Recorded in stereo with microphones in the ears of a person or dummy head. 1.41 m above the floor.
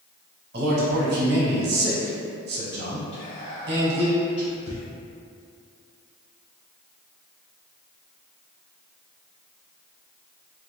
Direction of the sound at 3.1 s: 40° left (ahead or behind).